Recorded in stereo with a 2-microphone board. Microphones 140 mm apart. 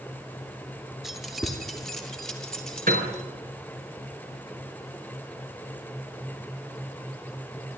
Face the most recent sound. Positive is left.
turn(degrees=-80)